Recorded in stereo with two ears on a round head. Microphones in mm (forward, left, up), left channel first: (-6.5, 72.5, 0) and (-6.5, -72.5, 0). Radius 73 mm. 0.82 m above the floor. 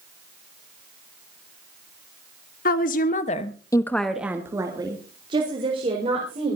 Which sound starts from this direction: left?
A woman speaking, at 2.6 s.